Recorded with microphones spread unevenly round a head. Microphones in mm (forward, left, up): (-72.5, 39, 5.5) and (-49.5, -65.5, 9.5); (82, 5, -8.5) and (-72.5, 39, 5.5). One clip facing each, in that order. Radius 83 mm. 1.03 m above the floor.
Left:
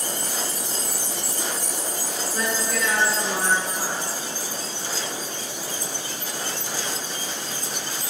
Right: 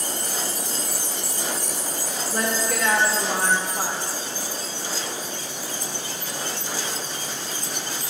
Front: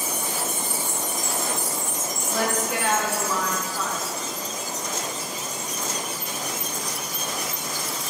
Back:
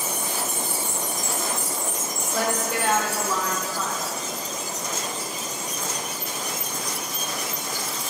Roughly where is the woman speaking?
Right.